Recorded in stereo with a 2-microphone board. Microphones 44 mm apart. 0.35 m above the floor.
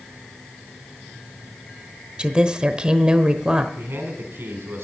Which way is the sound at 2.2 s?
20° right (ahead or behind).